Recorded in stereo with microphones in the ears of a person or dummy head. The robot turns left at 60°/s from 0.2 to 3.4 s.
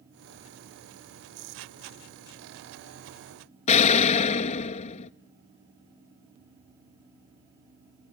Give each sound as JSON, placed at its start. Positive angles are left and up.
{"t": 3.7, "sound": "an explosion", "side_deg": 35, "distance_m": 0.5}